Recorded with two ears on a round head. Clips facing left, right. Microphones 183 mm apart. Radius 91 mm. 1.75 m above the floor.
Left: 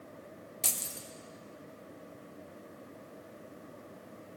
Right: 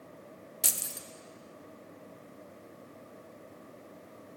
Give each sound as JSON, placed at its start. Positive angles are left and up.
{"t": 0.6, "sound": "keys jangling", "side_deg": -10, "distance_m": 0.6}